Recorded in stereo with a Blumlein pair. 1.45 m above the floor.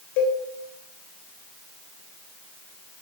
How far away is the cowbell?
About 3 m.